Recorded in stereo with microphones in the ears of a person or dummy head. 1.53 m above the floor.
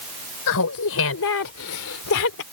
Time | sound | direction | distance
0.5 | laughter | 85° left | ?